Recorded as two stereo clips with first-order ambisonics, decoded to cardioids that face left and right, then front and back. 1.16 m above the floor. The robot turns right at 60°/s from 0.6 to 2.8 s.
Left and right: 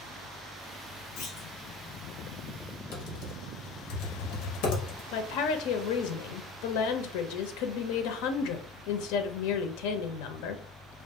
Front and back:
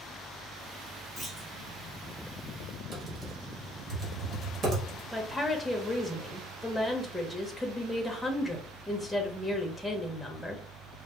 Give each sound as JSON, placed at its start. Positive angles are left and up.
{"t": 1.2, "sound": "a clunk", "azimuth_deg": 90, "distance_m": 1.3}
{"t": 2.9, "sound": "typing on a keyboard", "azimuth_deg": 120, "distance_m": 1.2}
{"t": 5.1, "sound": "a woman speaking", "azimuth_deg": 90, "distance_m": 0.6}